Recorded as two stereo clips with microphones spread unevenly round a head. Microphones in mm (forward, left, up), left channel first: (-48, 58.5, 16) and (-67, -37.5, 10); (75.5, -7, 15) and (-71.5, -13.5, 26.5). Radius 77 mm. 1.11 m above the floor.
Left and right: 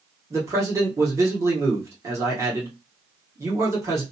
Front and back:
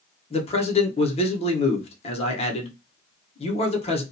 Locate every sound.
0.3 s a man speaking: 35° right, 0.9 m